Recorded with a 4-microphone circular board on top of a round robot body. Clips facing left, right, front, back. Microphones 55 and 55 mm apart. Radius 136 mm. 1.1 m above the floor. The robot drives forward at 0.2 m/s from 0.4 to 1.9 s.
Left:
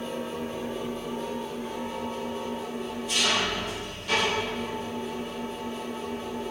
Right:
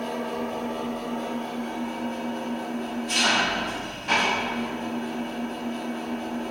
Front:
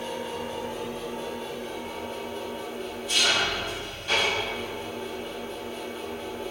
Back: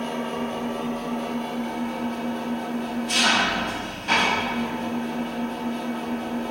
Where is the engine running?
130° right, 1.3 m; by 6.5 s 140° right, 1.5 m.